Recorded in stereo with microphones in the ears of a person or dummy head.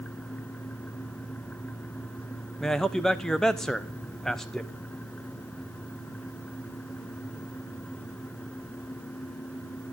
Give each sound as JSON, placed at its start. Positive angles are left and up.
{"t": 2.6, "sound": "a man speaking", "side_deg": 0, "distance_m": 0.9}